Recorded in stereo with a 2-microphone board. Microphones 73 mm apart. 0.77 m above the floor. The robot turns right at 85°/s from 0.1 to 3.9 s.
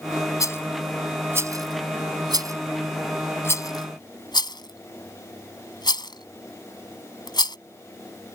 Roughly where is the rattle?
Left.